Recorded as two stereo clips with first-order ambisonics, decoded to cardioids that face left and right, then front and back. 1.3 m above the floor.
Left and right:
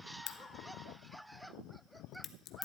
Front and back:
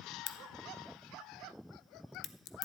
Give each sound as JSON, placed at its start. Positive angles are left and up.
{"t": 0.3, "sound": "a crack", "azimuth_deg": 35, "distance_m": 0.6}